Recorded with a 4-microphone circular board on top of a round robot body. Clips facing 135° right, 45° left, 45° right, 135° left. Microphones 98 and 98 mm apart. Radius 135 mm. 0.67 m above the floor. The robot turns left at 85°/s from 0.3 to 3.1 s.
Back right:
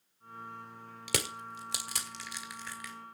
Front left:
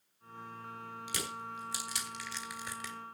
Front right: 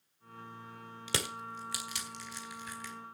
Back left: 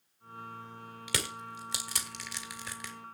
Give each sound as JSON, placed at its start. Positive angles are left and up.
{"t": 1.1, "sound": "crushing", "azimuth_deg": -105, "distance_m": 1.5}